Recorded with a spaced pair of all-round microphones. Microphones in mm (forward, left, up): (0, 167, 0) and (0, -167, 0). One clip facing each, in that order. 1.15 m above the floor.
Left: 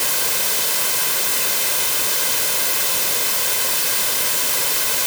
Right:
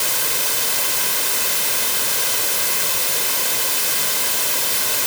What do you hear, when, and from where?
Only background noise.